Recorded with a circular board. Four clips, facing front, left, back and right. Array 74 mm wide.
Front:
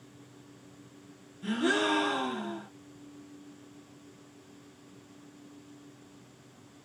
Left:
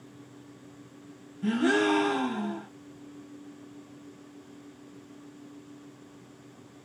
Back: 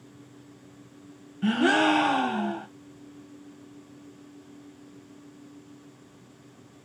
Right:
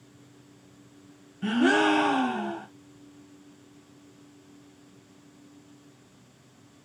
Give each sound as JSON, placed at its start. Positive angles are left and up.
{"t": 1.4, "sound": "a gasp", "azimuth_deg": -150, "distance_m": 0.7}